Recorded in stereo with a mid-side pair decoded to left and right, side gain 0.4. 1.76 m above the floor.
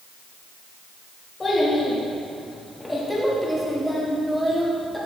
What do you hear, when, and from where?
1.4 s a child speaking: 30° left, 2.5 m; by 5.0 s 15° right, 3.5 m